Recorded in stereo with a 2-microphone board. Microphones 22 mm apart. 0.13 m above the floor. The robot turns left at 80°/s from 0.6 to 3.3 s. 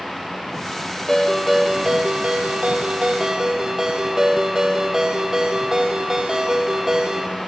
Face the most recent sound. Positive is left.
turn(degrees=-155)